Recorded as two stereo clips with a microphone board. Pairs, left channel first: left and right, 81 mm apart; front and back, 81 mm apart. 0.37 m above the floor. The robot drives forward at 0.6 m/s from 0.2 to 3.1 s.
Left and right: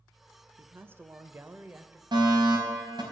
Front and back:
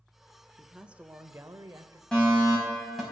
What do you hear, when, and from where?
0.6 s a man speaking: 90° right, 0.8 m; by 2.0 s 155° right, 1.2 m
2.1 s a fire alarm: 80° right, 4.5 m; by 3.0 s 85° right, 4.5 m